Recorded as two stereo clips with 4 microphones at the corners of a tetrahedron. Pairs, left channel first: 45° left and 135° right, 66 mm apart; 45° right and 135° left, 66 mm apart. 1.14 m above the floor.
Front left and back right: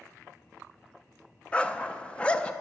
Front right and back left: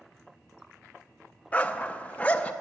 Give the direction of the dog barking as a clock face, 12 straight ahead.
12 o'clock.